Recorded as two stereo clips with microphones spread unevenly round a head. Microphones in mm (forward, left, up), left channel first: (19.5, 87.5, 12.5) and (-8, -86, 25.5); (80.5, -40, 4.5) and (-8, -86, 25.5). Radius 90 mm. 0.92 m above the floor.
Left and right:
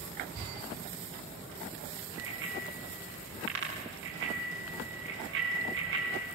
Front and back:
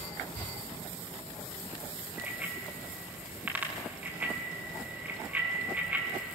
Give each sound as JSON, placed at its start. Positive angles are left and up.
{"t": 2.2, "sound": "a bicycle bell", "azimuth_deg": -80, "distance_m": 6.5}